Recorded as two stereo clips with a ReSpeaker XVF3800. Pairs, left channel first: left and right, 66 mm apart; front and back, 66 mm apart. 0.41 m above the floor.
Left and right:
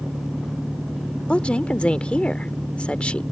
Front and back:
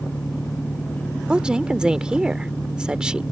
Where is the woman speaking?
130° left.